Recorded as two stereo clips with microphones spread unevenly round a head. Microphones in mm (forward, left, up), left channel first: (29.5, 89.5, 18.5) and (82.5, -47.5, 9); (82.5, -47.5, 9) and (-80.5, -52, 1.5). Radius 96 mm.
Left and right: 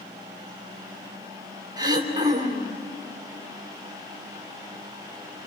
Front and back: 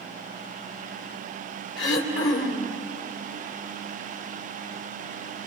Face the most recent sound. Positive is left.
turn(degrees=-5)